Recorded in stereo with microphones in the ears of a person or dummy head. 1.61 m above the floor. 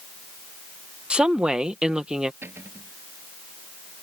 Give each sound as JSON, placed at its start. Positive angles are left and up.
{"t": 1.1, "sound": "a woman speaking", "side_deg": -5}
{"t": 2.4, "sound": "a cupboard door", "side_deg": -15}